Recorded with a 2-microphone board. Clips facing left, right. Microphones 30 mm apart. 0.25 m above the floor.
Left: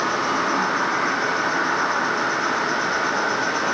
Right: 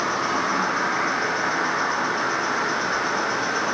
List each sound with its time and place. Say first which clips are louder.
0.0 s an insect: left 2 dB; 80° left, 2.5 m